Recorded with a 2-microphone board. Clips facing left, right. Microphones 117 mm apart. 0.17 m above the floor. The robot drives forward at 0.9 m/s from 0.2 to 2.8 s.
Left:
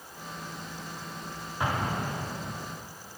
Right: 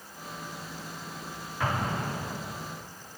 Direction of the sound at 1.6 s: 20° left (ahead or behind).